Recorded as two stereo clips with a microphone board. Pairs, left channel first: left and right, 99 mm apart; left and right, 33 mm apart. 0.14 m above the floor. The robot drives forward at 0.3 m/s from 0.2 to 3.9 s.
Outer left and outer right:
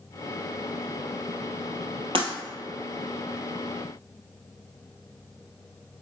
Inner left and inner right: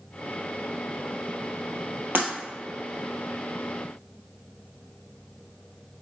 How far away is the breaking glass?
About 2.5 m.